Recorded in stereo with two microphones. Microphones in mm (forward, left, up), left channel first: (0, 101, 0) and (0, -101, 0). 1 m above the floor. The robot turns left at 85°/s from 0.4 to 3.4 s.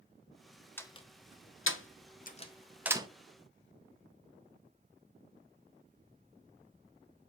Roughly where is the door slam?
Centre.